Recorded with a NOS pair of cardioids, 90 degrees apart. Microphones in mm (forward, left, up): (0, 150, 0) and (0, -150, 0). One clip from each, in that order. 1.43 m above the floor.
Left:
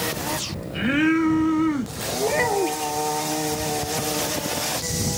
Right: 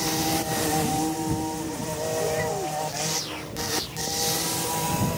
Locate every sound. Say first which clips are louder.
2.2 s a child speaking: left 9 dB; 65° left